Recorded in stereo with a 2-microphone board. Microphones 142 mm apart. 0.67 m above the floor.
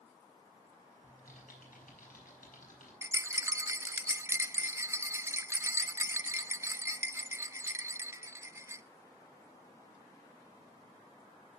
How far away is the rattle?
About 0.6 m.